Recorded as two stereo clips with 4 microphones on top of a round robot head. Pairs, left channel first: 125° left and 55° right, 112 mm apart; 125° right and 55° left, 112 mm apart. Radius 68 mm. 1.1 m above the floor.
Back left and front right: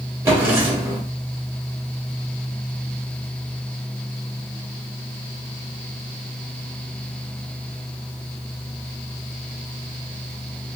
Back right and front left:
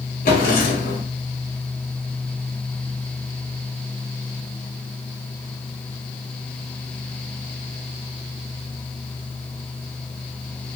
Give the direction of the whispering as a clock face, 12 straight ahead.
I don't hear whispering.